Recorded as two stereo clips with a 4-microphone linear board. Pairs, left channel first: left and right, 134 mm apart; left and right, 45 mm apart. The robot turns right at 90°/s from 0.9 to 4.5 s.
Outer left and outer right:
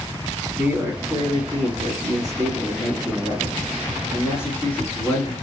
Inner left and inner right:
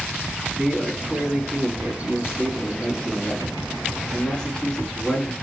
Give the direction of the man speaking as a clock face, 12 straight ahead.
5 o'clock.